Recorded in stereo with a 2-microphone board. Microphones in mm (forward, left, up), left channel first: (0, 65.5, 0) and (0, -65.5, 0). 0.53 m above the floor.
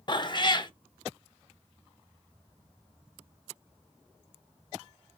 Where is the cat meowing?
35° left (ahead or behind), 0.5 m.